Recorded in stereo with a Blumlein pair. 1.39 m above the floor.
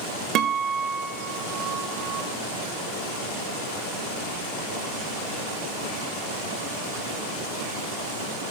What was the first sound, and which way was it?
A guitar, 35° right.